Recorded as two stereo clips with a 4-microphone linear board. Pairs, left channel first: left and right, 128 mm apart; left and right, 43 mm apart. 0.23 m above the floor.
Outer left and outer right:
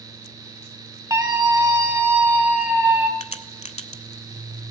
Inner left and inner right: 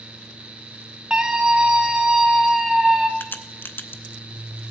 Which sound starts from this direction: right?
A scream, at 1.1 s.